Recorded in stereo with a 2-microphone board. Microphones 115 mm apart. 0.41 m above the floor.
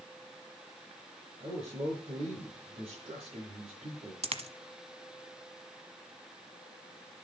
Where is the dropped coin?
60° right (ahead or behind), 1.1 m.